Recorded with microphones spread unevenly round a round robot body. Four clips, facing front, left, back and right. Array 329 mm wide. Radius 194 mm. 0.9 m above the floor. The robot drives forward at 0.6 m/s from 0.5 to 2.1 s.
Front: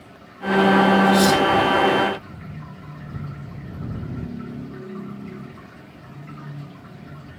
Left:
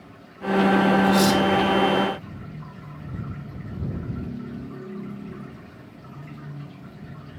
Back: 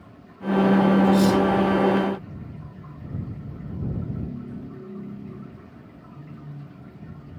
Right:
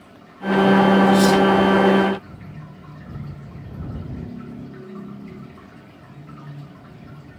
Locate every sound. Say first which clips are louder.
1.0 s cutlery clinking: right 4 dB, front 2 dB; 120° left, 4.5 m